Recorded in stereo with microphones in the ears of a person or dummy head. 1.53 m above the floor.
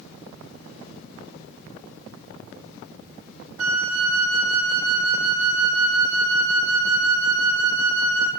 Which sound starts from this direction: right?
A flute, at 3.6 s.